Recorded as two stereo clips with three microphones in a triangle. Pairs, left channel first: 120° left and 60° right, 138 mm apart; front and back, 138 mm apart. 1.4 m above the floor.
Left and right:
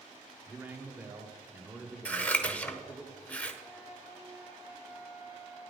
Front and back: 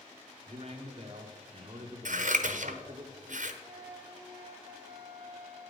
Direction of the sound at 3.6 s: 115° right.